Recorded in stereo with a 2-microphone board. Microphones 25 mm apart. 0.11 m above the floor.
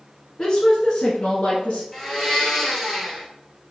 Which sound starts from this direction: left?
A woman speaking, at 0.4 s.